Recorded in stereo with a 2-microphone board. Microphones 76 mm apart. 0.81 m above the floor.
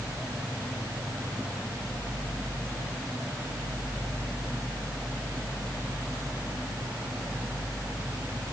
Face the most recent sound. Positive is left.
No sound to turn to.